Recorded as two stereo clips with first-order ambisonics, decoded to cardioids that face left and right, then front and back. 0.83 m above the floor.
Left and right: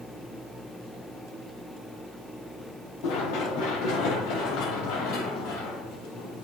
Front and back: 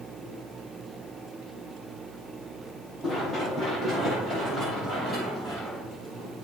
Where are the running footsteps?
90° left, 6 m; by 6.5 s 110° left, 7 m.